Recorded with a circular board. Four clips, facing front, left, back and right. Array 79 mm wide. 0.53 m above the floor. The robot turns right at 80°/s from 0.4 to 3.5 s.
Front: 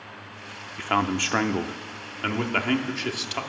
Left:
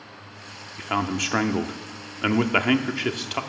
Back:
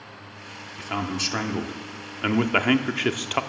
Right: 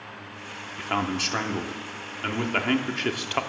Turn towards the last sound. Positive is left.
turn(degrees=-150)